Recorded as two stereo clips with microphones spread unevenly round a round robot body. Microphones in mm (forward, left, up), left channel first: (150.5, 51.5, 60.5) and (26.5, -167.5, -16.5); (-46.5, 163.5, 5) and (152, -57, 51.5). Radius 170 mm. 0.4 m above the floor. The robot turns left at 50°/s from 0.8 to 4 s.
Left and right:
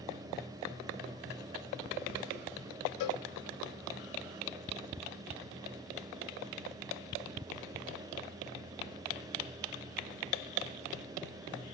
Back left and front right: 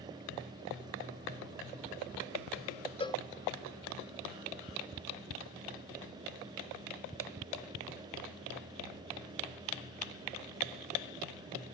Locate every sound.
3.0 s a cowbell: 60° left, 0.6 m; by 3.2 s 50° left, 0.6 m